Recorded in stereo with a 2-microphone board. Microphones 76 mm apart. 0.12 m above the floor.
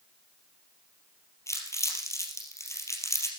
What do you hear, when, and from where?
1.5 s crumpling: 40° left (ahead or behind), 3.5 m